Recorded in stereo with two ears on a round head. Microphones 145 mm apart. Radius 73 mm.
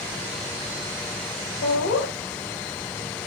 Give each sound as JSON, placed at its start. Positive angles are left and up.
{"t": 1.6, "sound": "laughter", "side_deg": 80, "distance_m": 7.0}